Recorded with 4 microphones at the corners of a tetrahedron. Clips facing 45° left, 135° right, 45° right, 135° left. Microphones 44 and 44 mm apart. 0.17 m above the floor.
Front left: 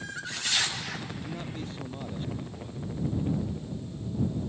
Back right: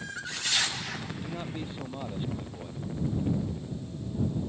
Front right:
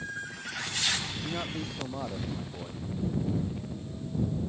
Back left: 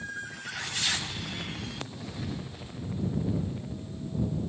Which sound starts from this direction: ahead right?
A man speaking, at 1.2 s.